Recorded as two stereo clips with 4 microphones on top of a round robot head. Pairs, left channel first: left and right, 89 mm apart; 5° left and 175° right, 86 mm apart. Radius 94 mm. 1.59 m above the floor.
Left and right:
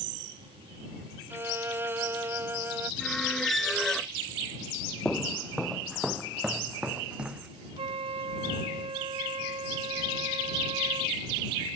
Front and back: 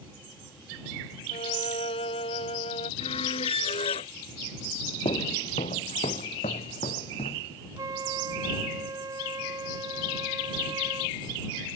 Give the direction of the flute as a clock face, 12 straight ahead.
4 o'clock.